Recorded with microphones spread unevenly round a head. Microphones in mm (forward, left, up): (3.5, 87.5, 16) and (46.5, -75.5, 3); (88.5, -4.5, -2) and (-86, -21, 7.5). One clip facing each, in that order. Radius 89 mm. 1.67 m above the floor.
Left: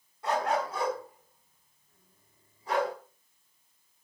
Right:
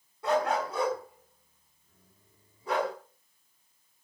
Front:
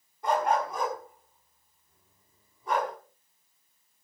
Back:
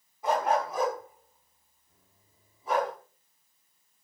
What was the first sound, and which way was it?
A dog barking, 90° right.